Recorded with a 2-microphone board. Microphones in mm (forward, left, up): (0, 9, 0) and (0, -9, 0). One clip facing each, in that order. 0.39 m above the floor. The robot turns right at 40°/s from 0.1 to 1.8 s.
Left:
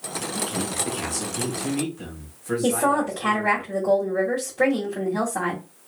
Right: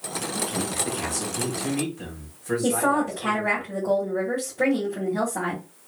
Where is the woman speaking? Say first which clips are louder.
Left 1 dB; 50° left (ahead or behind), 1.5 m.